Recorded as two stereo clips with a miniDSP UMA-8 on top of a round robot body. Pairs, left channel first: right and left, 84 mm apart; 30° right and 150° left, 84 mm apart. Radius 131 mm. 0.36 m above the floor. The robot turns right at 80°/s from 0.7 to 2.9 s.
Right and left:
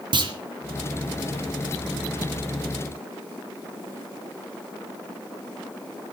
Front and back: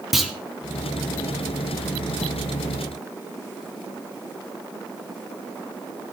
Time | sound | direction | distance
0.1 | a clunk | 60° left | 2.5 m